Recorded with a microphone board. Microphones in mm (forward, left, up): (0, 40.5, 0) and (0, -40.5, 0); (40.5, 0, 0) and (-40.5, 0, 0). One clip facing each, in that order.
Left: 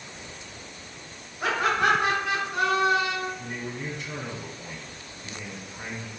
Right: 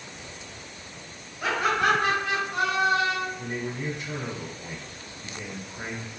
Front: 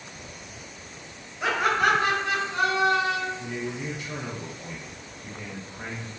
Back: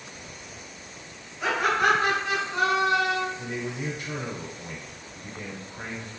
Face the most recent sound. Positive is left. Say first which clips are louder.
# right 3 dB, even
turn(degrees=-145)